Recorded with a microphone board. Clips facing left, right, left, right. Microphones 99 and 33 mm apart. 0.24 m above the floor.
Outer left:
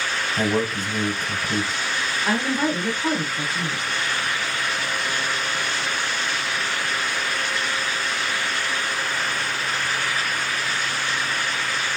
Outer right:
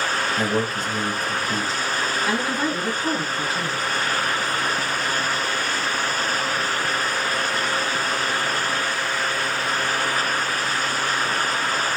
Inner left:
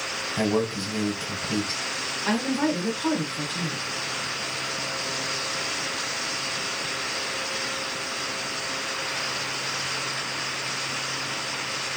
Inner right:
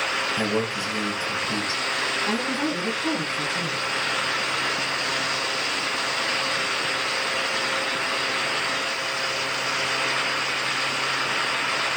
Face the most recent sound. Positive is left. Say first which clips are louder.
# outer left 4 dB, even
turn(degrees=45)  # may be behind; listen again after turning